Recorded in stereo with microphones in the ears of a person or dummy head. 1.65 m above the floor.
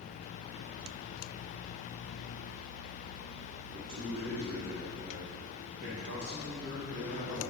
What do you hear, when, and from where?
3.7 s a man speaking: 75° right (ahead or behind), 1.3 m; by 7.4 s 55° right (ahead or behind), 3 m